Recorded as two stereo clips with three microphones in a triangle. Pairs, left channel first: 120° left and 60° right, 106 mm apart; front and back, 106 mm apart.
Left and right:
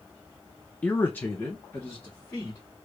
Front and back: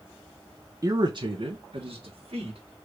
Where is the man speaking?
175° right, 0.7 m; by 2.6 s 170° right, 2 m.